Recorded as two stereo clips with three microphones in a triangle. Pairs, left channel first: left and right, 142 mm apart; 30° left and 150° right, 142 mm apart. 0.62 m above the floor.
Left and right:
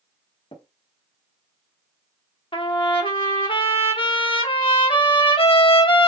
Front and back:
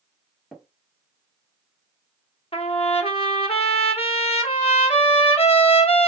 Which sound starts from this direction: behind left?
Tapping, at 0.5 s.